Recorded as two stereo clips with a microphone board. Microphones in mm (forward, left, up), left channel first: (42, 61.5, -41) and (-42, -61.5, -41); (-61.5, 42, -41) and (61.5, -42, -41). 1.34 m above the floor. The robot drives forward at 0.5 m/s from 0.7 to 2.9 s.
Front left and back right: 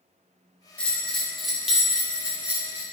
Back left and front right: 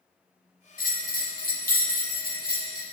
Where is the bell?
135° left, 1.1 m; by 2.8 s 160° left, 2.0 m.